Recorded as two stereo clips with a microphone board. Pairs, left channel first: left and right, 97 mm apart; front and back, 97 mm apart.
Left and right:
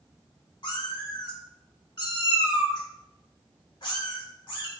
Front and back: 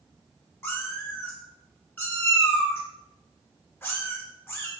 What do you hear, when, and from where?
0.6 s a cat meowing: 60° left, 0.8 m